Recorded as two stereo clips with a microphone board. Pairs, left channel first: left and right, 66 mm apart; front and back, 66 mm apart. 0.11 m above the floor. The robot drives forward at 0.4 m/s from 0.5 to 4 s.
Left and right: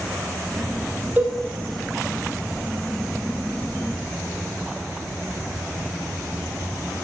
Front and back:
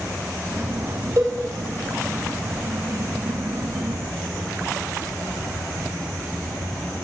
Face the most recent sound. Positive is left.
turn(degrees=-160)